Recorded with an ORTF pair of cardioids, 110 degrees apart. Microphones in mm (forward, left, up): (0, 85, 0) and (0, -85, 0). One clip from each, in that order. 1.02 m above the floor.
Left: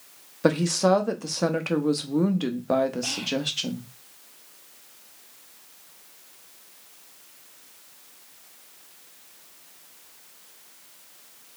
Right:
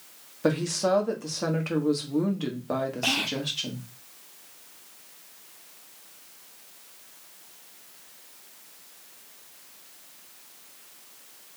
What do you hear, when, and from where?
0.4 s a woman speaking: 30° left, 1.1 m
3.0 s whispering: 40° right, 0.6 m